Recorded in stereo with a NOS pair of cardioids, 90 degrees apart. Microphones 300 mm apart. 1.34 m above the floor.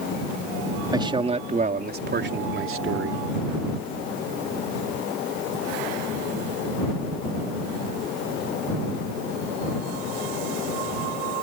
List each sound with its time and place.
0.9 s a man speaking: 15° right; by 3.2 s 50° right